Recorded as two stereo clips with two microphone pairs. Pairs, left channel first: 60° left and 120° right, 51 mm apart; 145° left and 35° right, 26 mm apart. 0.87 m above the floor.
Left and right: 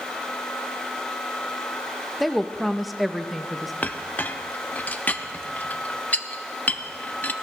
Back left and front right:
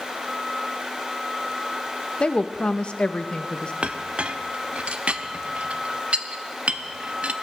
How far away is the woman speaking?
About 0.7 m.